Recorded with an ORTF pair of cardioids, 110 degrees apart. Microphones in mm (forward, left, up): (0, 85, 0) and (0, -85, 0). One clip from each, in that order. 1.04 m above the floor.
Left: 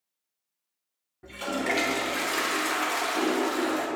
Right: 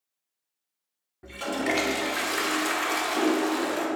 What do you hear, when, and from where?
1.2 s a toilet flushing: 10° right, 0.6 m